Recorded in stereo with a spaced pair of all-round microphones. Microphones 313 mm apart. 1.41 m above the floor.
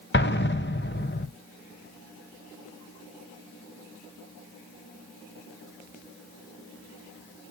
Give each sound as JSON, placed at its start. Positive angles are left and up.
{"t": 0.1, "sound": "an explosion", "side_deg": 35, "distance_m": 0.6}